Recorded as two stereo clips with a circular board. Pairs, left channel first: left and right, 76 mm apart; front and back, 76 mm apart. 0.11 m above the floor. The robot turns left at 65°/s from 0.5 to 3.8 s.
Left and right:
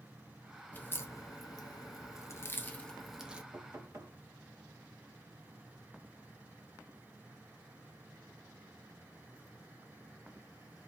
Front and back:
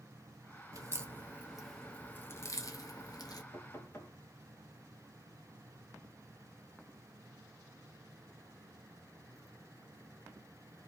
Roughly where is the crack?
Behind left.